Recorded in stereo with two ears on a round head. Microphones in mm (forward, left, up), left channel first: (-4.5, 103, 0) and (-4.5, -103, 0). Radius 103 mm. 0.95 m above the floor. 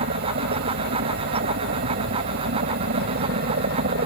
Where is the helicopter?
45° right (ahead or behind); by 4.1 s 40° right (ahead or behind).